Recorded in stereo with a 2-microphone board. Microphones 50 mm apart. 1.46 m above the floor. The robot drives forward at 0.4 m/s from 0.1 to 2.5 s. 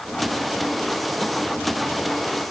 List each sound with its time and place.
Only background noise.